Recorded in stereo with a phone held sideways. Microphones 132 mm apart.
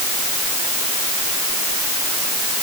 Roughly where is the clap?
No clap in this recording.